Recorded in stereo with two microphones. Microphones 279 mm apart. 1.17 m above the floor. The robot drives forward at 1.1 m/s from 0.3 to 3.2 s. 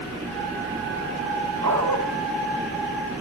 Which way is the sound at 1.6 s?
75° right (ahead or behind).